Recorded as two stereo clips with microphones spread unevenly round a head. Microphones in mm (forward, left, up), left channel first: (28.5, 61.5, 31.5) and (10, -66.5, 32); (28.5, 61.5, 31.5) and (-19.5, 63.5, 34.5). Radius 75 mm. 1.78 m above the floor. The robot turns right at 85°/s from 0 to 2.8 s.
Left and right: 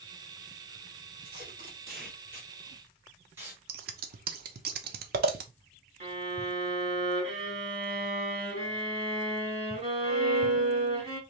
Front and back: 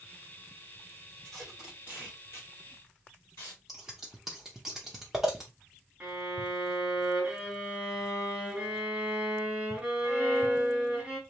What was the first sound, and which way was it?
Tape being pulled, 160° right.